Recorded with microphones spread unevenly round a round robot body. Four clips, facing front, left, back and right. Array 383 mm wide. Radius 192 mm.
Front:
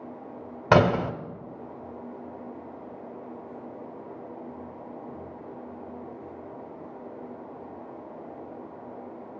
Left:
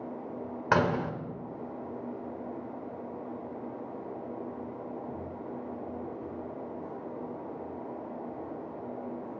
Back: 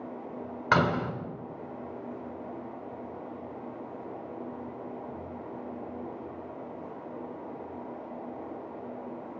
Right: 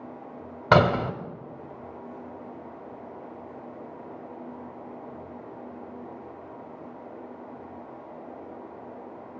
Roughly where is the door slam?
Ahead right.